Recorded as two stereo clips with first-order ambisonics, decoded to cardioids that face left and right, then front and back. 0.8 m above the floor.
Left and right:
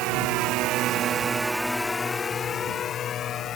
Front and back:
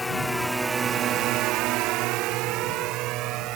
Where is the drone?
80° right; by 3.6 s 145° left.